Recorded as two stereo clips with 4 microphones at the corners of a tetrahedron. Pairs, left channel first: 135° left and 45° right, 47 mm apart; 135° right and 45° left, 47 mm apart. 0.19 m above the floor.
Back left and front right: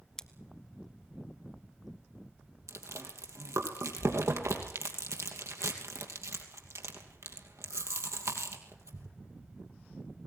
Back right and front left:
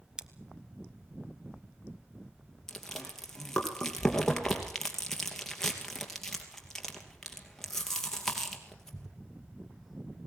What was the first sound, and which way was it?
Scissors, 85° left.